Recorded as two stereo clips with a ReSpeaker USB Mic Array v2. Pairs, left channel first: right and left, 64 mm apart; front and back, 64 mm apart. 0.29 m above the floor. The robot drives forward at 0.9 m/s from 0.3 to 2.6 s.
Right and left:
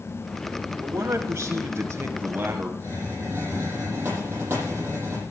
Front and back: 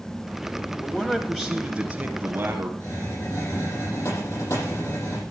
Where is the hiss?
30° left, 8.5 m.